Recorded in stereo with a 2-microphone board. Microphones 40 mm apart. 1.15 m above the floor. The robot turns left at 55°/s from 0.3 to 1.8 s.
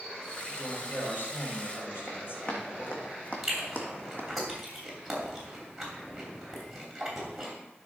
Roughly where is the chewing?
Centre.